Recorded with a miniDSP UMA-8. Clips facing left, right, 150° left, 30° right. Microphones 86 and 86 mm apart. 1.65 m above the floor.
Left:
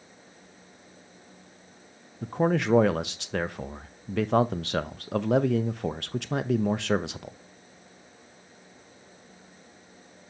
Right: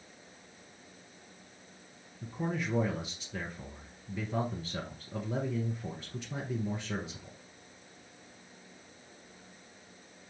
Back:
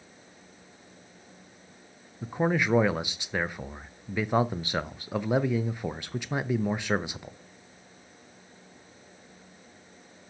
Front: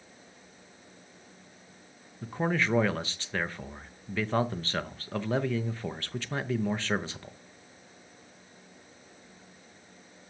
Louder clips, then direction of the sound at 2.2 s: Left 10 dB, back 3 dB; 75° left.